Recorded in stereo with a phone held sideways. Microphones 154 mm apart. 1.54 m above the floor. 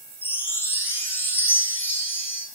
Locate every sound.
0.2 s a chime: 15° left (ahead or behind), 1.1 m